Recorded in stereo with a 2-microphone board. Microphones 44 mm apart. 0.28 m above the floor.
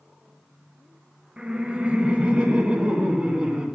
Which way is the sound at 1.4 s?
25° right (ahead or behind).